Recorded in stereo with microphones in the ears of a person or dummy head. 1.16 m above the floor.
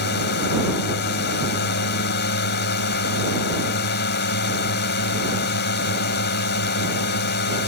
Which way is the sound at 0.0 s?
50° left (ahead or behind).